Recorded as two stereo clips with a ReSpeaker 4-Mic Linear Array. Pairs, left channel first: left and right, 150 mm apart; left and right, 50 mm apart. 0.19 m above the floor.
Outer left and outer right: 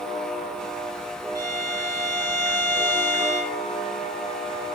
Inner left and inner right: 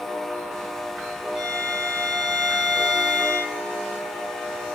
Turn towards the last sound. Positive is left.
turn(degrees=-20)  # may be behind; listen again after turning